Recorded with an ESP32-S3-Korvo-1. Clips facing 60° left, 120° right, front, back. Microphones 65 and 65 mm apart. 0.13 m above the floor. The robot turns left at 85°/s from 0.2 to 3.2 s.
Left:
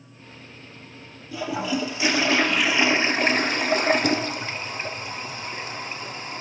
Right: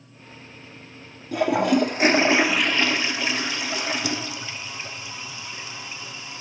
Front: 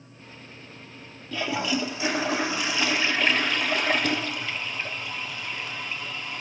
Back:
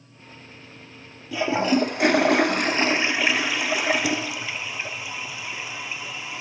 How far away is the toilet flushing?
About 0.8 m.